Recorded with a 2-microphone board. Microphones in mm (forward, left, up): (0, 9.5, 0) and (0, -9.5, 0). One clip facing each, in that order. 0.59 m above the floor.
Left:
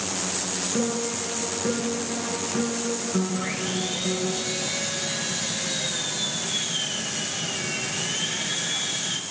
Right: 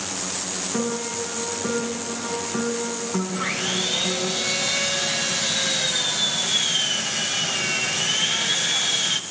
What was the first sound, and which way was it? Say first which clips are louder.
A piano: right 1 dB; 60° right (ahead or behind).